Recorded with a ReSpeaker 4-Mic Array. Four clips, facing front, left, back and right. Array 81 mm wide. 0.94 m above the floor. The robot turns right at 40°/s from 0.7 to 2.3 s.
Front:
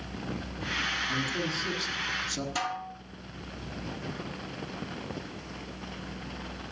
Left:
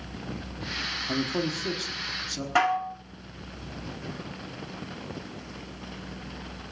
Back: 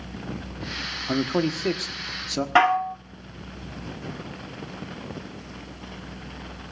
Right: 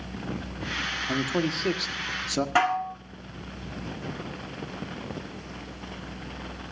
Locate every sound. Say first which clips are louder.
1.1 s a man speaking: right 1 dB, back 8 dB; 175° right, 1.4 m; by 2.5 s 130° right, 1.4 m
2.5 s dishes clattering: left 1 dB, back 18 dB; 175° right, 1.2 m